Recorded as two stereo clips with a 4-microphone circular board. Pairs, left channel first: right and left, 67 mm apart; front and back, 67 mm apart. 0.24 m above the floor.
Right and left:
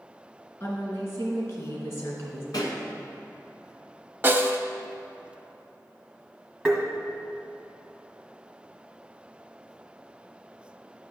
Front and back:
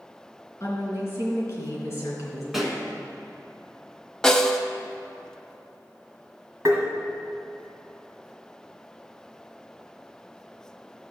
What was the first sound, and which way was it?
A woman speaking, 45° right.